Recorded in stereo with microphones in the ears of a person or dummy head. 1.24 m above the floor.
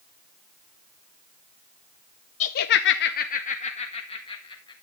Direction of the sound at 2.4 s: 35° left (ahead or behind).